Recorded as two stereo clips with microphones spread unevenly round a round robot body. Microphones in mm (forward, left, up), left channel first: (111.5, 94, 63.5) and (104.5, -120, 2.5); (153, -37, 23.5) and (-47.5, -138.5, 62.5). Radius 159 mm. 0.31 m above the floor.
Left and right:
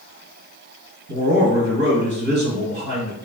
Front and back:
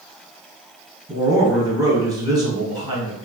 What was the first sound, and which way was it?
A man speaking, 85° right.